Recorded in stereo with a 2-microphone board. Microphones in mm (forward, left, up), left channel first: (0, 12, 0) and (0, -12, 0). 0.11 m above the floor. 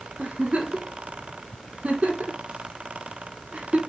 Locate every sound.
0.2 s a giggle: 65° right (ahead or behind), 3 m